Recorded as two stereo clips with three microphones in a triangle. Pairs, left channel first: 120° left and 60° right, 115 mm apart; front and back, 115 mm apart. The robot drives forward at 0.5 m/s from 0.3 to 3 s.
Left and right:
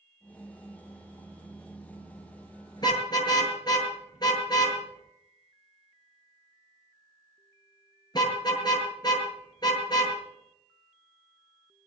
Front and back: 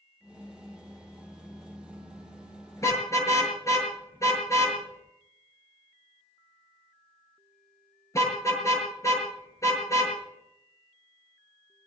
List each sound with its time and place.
2.8 s a car horn: 65° left, 8 m